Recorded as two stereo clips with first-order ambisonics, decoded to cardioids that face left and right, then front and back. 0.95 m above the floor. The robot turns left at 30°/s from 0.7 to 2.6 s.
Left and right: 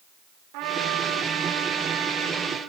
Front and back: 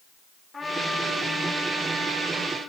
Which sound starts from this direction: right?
A trumpet, at 0.5 s.